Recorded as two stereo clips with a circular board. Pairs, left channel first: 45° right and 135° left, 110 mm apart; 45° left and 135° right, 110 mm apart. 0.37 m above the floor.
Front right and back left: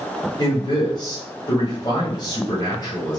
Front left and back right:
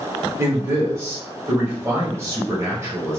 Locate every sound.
0.4 s a man speaking: 80° right, 1.7 m